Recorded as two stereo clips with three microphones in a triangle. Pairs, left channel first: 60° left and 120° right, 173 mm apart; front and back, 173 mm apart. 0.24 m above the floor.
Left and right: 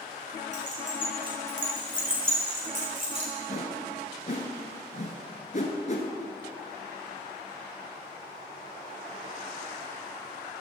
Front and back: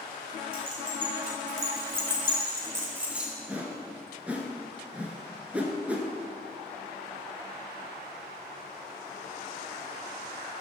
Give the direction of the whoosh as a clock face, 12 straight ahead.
9 o'clock.